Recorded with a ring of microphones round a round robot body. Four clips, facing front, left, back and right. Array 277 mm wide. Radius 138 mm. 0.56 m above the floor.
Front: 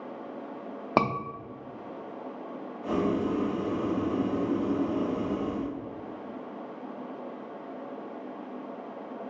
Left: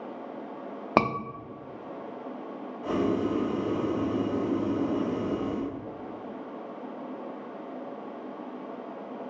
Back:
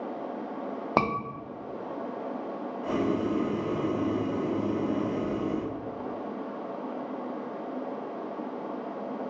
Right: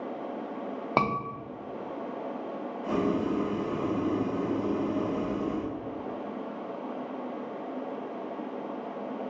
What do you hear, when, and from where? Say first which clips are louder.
1.0 s a scream: left 3 dB, front 1 dB; 80° left, 0.7 m
2.8 s boiling: left 1 dB, even; 115° left, 2 m